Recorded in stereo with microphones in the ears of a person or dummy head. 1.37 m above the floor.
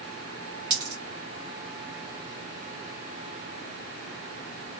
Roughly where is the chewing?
I don't hear chewing.